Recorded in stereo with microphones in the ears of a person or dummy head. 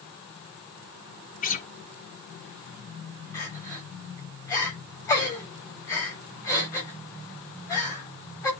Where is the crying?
15° left (ahead or behind), 7.5 m.